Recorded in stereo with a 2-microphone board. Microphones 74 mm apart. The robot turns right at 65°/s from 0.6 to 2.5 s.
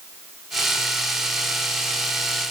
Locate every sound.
Only background noise.